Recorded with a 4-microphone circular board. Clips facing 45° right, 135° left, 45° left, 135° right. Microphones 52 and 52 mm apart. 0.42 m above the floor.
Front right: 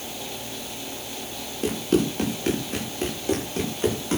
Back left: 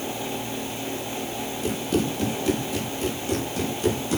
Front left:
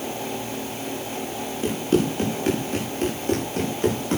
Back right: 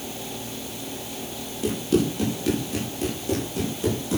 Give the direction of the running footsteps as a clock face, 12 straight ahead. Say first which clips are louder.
Front right 3 dB, front left 1 dB; 12 o'clock.